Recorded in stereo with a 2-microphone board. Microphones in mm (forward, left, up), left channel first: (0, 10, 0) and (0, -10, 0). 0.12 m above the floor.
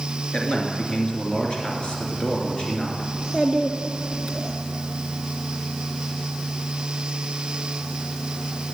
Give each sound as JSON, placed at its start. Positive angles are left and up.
{"t": 0.3, "sound": "a man speaking", "side_deg": 40, "distance_m": 2.0}
{"t": 3.1, "sound": "a child speaking", "side_deg": 20, "distance_m": 1.2}